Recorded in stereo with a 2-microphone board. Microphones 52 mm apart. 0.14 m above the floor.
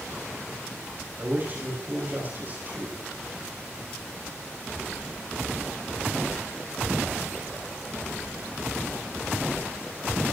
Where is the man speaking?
35° right (ahead or behind), 6 m.